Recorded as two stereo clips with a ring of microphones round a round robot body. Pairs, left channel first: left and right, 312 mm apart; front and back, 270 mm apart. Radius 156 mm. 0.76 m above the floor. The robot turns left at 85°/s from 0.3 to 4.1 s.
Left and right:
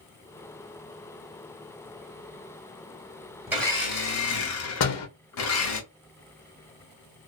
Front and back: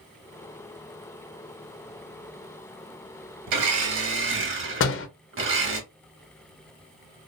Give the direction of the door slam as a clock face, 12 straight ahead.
10 o'clock.